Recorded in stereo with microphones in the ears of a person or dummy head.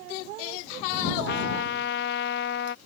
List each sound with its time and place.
1.3 s a trumpet: 60° left (ahead or behind)